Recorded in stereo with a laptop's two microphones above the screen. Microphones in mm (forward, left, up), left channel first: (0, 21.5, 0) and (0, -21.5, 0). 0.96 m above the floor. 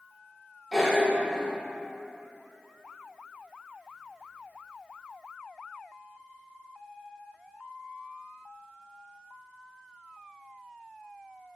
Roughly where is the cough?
Centre.